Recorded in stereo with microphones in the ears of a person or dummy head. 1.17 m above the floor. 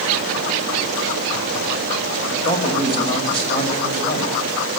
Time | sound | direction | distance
2.3 | a man speaking | 25° left (ahead or behind) | 5 m